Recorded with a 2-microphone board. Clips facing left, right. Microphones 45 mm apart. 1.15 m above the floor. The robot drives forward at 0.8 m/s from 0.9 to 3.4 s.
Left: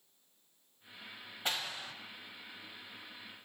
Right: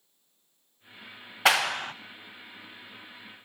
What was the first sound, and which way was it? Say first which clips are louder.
A clap: right 15 dB; 85° right.